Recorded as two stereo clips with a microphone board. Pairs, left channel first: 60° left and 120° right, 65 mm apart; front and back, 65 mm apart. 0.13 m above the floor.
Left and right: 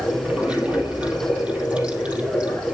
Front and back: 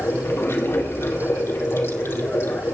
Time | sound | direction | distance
0.0 | running water | 50° right | 4.5 m